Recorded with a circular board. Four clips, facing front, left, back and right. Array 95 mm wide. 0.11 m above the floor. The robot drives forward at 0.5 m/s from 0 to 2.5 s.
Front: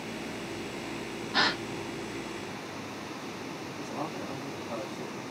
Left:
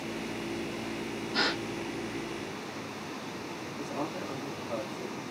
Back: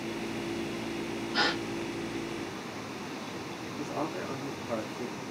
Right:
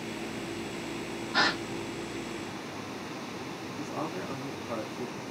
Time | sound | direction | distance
1.3 | a gasp | 30° right | 2.5 m
3.8 | a man speaking | 145° right | 1.6 m